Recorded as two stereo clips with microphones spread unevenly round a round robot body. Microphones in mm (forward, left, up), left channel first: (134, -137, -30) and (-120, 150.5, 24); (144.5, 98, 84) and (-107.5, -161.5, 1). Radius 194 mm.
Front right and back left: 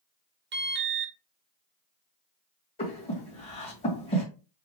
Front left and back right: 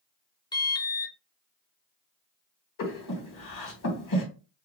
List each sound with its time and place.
0.5 s an alarm: 140° left, 0.7 m
2.8 s breathing: 15° left, 2.0 m